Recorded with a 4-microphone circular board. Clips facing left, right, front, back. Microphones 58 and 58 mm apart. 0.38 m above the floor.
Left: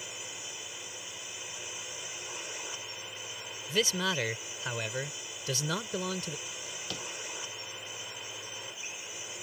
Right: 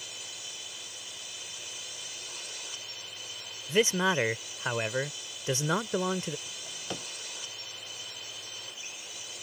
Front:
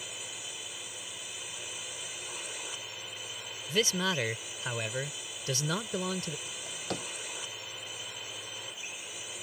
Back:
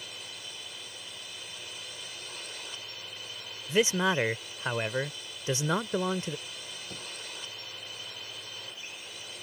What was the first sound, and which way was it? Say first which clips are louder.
A drone: left 1 dB, front 1 dB; 65° left.